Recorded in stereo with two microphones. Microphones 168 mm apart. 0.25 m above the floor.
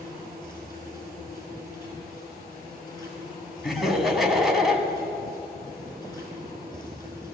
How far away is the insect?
About 5 m.